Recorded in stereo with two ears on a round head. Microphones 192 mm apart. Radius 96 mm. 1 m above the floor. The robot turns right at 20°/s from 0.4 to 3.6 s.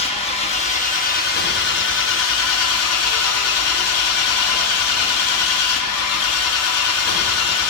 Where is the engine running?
30° left, 1.1 m; by 7.7 s 95° left, 1.1 m.